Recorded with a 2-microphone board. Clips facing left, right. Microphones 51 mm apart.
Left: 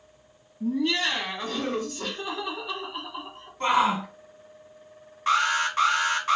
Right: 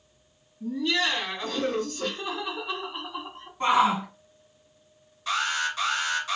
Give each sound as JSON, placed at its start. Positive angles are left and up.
{"t": 0.6, "sound": "laughter", "side_deg": 40, "distance_m": 1.9}
{"t": 3.6, "sound": "a shout", "side_deg": -10, "distance_m": 1.8}
{"t": 5.3, "sound": "an alarm", "side_deg": 45, "distance_m": 1.2}